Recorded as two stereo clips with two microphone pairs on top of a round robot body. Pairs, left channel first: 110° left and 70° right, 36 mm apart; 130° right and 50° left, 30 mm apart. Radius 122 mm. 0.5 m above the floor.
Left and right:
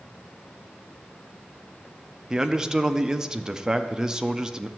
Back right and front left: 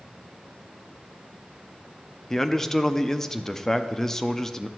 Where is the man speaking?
115° right, 0.8 m.